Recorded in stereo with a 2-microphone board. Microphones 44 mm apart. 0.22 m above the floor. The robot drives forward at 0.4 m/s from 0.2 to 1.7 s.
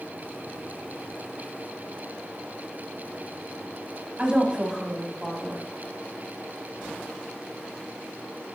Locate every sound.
4.2 s a woman speaking: 25° right (ahead or behind), 1.0 m